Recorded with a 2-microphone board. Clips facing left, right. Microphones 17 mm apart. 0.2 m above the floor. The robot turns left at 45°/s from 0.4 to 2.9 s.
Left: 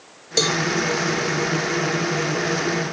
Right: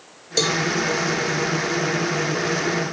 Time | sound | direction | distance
0.4 | a cowbell | 5° left (ahead or behind) | 0.9 m